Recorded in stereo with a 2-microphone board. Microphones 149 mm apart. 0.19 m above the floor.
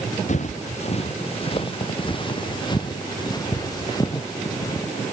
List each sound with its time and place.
0.3 s footsteps: 55° left (ahead or behind); by 4.9 s 20° left (ahead or behind)